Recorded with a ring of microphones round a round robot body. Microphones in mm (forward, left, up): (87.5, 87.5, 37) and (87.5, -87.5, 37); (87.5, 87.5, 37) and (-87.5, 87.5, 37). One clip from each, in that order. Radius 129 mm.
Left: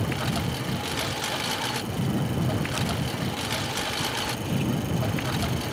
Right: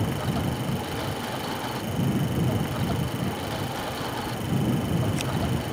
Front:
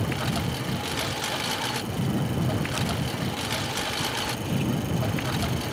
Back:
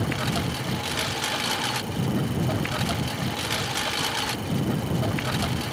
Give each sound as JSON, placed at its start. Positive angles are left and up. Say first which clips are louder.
{"t": 0.0, "sound": "a lawn mower", "louder": "even, back 2 dB", "azimuth_deg": 125}